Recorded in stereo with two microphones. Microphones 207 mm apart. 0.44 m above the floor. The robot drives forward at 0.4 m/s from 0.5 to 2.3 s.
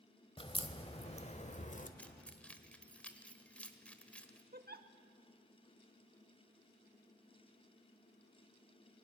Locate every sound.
0.4 s a crack: 25° left (ahead or behind), 1.3 m; by 1.9 s 40° left (ahead or behind), 0.9 m
2.0 s keys jangling: 5° left (ahead or behind), 1.1 m
4.5 s a giggle: 50° right (ahead or behind), 0.8 m